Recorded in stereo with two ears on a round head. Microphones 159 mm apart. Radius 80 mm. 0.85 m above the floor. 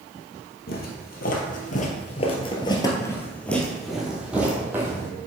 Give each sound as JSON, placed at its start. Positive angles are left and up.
{"t": 0.7, "sound": "footsteps", "side_deg": 60, "distance_m": 1.5}